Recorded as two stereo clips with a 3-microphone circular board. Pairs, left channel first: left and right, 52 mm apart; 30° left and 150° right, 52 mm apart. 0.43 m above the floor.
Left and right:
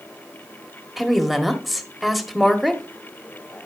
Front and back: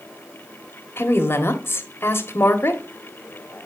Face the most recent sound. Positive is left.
turn(degrees=0)